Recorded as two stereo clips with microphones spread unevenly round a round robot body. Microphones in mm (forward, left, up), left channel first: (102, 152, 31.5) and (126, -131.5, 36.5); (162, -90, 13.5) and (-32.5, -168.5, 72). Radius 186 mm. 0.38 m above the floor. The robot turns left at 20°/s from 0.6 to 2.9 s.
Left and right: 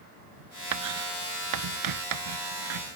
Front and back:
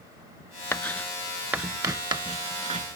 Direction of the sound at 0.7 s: 65° right.